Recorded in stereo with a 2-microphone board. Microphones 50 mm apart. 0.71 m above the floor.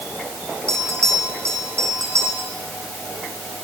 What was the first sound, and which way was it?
A bell, 75° right (ahead or behind).